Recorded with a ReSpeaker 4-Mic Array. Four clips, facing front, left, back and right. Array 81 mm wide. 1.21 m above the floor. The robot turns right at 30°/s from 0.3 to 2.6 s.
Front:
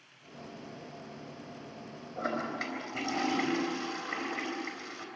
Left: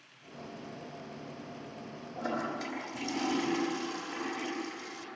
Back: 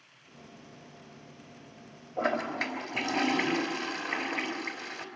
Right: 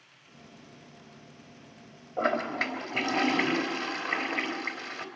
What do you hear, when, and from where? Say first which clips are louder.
2.2 s a toilet flushing: right 7 dB, back 4 dB; 110° right, 3 m; by 5.1 s 95° right, 3 m